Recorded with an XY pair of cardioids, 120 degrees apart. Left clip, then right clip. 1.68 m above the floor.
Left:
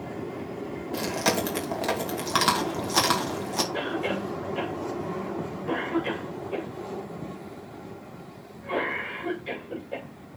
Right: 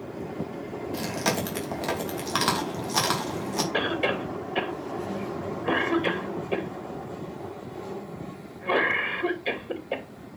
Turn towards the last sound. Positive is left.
turn(degrees=-65)